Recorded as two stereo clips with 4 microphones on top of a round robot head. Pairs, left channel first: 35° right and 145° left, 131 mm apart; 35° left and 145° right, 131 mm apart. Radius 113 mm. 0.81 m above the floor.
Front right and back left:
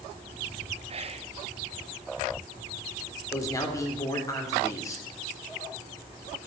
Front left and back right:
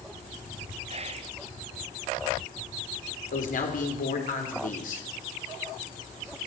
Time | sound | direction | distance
0.9 | whispering | straight behind | 1.1 m
3.3 | a man speaking | 30° left | 3.5 m